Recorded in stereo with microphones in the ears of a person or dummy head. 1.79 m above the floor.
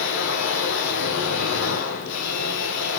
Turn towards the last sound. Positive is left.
turn(degrees=65)  # may be behind; listen again after turning